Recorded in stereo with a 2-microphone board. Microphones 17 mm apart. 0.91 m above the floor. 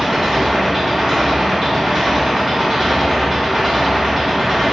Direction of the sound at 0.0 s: 20° right (ahead or behind).